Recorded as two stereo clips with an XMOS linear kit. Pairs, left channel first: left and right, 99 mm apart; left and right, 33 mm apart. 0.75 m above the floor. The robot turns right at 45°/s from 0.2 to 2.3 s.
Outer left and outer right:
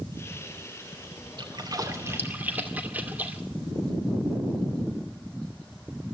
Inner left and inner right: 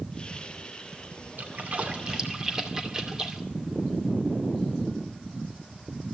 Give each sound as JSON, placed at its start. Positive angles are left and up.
{"t": 1.4, "sound": "a splash", "side_deg": -55, "distance_m": 2.5}